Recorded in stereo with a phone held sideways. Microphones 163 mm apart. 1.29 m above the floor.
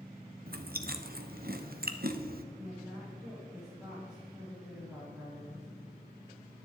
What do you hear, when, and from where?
0.5 s chewing: 65° right (ahead or behind), 0.8 m
2.5 s a woman speaking: 5° right (ahead or behind), 3.5 m